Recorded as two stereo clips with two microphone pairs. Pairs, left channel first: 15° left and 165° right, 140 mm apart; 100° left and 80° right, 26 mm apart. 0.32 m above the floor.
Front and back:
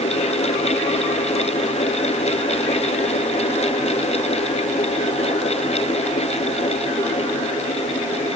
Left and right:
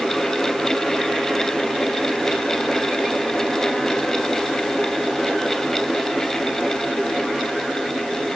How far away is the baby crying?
I don't hear a baby crying.